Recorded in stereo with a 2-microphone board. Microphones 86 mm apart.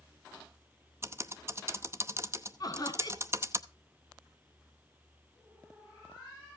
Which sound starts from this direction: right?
Typing on a keyboard, at 1.0 s.